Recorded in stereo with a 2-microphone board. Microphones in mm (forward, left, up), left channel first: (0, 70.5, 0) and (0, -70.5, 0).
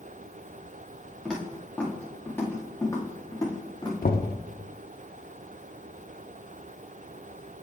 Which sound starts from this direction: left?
Knocking, at 4.0 s.